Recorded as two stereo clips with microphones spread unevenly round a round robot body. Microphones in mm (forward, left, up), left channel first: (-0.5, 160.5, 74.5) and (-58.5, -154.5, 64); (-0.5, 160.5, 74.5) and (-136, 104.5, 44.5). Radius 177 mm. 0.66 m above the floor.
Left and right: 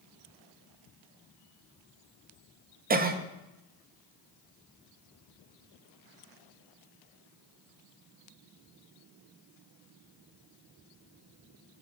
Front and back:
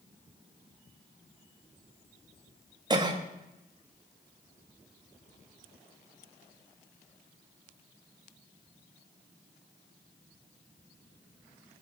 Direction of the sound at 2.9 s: 145° right.